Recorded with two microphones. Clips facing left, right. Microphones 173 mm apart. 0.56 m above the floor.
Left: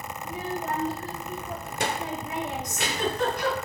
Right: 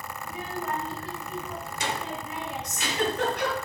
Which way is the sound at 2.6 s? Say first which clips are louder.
Even; 70° right (ahead or behind).